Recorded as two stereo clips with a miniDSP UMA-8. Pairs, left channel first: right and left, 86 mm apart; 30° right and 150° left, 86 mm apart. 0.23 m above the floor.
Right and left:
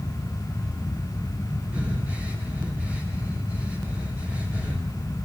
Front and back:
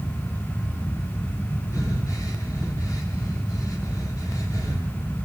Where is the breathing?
20° left, 9 m.